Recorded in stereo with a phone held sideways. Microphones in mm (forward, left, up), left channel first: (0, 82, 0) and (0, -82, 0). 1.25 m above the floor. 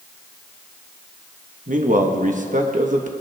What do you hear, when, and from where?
1.7 s a man speaking: 55° right (ahead or behind), 1.2 m